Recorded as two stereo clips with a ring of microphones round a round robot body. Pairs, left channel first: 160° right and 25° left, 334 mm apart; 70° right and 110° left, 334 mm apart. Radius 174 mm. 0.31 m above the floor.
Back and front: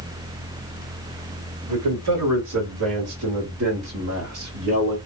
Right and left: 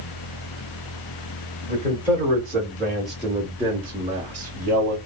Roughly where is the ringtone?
No ringtone in this recording.